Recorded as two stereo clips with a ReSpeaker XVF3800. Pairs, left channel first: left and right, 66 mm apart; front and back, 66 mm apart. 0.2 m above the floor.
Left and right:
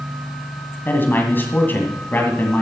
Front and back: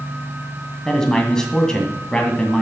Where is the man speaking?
70° left, 1.9 m.